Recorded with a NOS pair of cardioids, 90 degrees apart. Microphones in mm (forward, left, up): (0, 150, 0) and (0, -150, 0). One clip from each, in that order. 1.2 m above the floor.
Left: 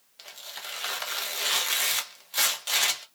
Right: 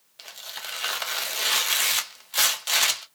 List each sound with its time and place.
0.2 s tearing paper: 15° right, 0.6 m